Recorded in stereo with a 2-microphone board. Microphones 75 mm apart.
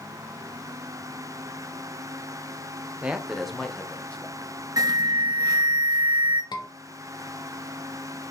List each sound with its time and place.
3.0 s a man speaking: 15° right (ahead or behind), 0.9 m; by 4.5 s 20° left (ahead or behind), 2.5 m
4.8 s an alarm: 50° right (ahead or behind), 1.7 m
6.5 s a scream: 70° left (ahead or behind), 1.8 m